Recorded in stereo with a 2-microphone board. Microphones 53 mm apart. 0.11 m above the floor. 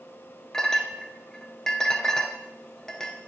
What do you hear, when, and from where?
0.5 s a clink: 10° left (ahead or behind), 1.0 m